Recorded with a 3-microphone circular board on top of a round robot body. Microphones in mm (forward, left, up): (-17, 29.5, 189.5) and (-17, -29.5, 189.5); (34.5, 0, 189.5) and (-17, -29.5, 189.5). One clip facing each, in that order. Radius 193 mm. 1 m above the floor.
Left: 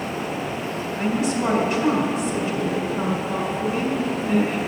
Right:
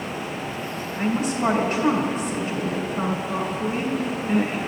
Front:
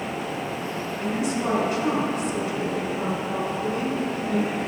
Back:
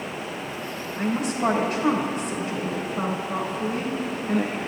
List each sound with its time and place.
1.0 s a woman speaking: 135° right, 2.5 m